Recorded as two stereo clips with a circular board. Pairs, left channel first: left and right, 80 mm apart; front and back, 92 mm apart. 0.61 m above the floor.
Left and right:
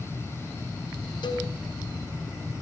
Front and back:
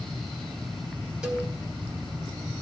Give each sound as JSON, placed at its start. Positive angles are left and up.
{"t": 1.2, "sound": "a cowbell", "azimuth_deg": 100, "distance_m": 3.0}